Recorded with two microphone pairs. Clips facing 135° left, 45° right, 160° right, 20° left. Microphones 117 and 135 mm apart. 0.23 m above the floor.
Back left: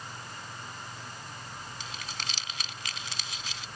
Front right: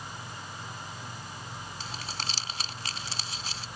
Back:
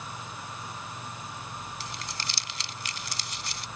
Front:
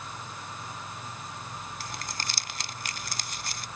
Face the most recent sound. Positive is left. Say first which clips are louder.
# front right 4 dB, front 1 dB
turn(degrees=0)